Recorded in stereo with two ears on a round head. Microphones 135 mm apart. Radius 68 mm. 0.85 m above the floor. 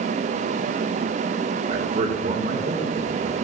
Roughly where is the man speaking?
Right.